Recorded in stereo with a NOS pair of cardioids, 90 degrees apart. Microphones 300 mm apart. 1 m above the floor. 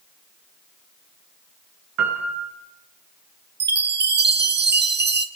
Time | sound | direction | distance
2.0 | a piano | 65° right | 5.5 m
3.6 | a chime | 35° right | 1.8 m